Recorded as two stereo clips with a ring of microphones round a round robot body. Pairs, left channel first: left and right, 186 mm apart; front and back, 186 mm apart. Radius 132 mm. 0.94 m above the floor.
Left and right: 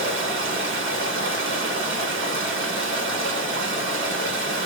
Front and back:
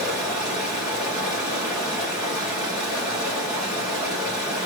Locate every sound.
0.0 s running water: 95° right, 1.9 m